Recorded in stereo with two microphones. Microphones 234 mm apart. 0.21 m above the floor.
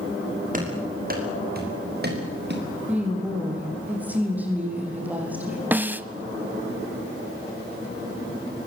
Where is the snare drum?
10° right (ahead or behind), 0.7 m.